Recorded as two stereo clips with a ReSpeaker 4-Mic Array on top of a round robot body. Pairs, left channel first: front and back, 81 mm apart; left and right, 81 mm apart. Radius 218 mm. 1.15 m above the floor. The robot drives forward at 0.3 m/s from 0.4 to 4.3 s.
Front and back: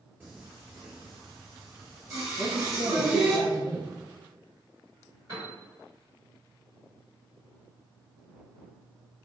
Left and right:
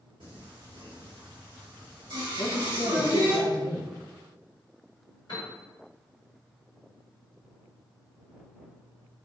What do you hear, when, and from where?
0.2 s singing: 110° right, 1.8 m; by 3.4 s 130° right, 2.5 m
2.4 s a man speaking: 110° left, 1.3 m; by 3.9 s 130° left, 1.6 m
5.3 s a piano: 130° left, 1.1 m